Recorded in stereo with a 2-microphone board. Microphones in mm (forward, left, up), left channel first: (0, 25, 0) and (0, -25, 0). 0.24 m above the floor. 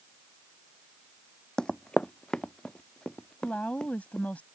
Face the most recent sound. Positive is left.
turn(degrees=35)  # may be behind; listen again after turning